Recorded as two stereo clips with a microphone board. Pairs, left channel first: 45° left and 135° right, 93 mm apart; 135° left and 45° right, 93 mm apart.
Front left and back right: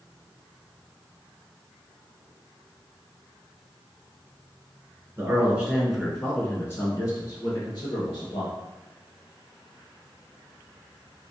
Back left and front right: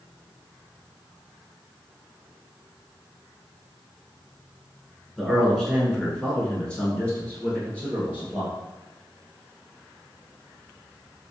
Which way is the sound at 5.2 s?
135° right.